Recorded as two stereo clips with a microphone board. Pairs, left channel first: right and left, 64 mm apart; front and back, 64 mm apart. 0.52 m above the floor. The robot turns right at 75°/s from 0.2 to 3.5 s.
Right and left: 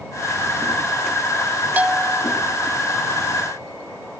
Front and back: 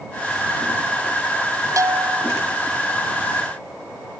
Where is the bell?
155° left; by 2.3 s 165° right.